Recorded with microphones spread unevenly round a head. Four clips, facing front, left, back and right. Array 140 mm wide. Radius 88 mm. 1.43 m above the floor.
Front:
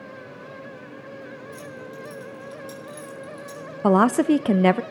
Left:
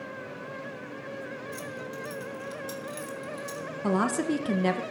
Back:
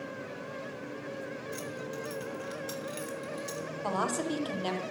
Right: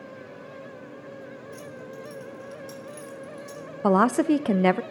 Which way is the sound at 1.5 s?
145° left.